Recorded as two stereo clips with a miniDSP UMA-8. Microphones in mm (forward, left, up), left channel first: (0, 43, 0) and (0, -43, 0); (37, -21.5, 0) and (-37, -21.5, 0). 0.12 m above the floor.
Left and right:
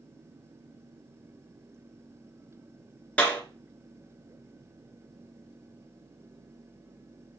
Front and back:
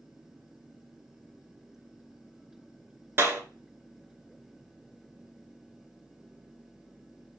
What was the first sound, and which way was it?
A clap, 150° left.